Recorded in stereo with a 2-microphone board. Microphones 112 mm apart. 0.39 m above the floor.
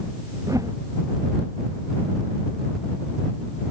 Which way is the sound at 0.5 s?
30° right (ahead or behind).